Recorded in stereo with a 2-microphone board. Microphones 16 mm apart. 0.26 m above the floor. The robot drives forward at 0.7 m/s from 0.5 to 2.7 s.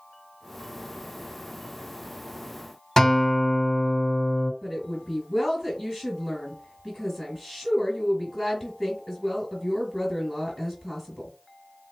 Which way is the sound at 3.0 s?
30° left (ahead or behind).